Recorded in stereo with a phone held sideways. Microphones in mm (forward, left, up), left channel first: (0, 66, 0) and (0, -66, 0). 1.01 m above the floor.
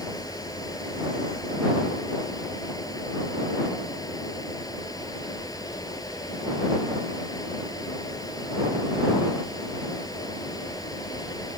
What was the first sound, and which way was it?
A fan, 30° left (ahead or behind).